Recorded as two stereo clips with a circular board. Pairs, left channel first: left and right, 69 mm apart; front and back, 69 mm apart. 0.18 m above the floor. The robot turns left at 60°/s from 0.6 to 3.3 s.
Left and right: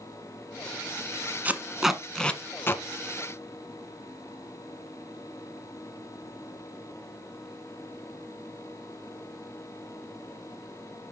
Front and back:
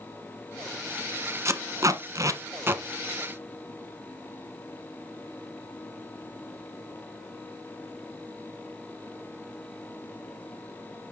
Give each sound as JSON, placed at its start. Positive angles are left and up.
{"t": 1.4, "sound": "tape being pulled", "azimuth_deg": -150, "distance_m": 1.0}